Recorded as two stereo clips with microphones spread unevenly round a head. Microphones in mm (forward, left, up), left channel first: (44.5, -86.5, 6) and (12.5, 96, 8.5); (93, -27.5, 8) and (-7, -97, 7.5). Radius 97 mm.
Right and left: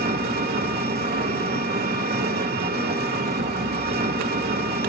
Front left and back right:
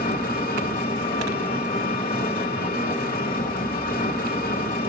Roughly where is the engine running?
Ahead left.